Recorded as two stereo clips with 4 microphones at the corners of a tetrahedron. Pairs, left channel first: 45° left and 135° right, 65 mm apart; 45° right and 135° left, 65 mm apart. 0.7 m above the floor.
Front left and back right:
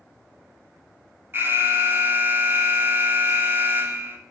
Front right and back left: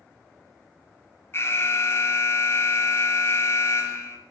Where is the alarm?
85° right, 3 m.